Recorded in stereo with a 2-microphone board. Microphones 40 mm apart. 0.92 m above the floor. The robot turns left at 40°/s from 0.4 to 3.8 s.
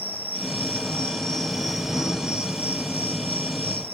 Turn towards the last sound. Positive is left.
turn(degrees=-90)